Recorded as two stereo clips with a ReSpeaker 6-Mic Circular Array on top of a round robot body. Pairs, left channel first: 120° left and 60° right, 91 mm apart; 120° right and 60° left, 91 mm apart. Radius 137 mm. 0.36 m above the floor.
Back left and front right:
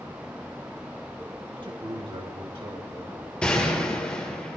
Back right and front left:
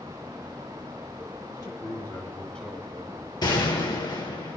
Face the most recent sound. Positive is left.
turn(degrees=-160)